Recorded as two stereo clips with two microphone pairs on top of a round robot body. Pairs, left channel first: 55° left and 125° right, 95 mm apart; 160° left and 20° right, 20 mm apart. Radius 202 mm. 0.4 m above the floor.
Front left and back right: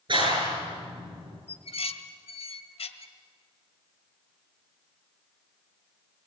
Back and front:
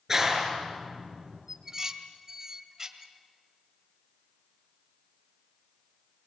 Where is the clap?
90° right, 9 m.